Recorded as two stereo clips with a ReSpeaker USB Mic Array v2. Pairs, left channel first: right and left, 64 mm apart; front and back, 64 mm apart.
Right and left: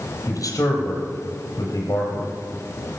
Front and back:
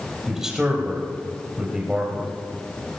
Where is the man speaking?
100° right, 4.5 m.